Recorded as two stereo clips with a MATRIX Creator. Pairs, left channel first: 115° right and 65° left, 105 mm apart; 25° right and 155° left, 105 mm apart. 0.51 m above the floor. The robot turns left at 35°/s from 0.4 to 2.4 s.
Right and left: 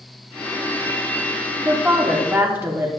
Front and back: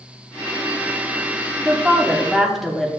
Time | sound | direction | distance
1.6 | a woman speaking | 100° left | 1.0 m